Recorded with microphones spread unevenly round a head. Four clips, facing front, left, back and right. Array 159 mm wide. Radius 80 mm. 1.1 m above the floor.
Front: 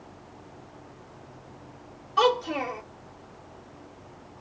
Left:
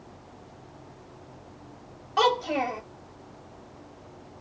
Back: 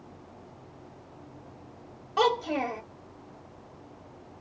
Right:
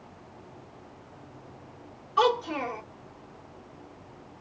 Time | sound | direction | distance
2.2 | a child speaking | 140° left | 1.3 m